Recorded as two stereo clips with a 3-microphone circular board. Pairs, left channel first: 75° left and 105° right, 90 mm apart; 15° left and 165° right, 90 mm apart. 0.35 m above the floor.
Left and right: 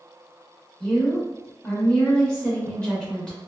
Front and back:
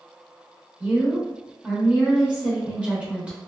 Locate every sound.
0.8 s a woman speaking: 140° left, 0.9 m